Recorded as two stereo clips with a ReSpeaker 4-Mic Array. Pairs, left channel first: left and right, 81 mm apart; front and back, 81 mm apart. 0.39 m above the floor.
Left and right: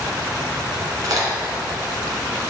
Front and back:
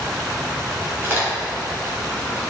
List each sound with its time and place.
1.0 s a crack: 120° right, 1.9 m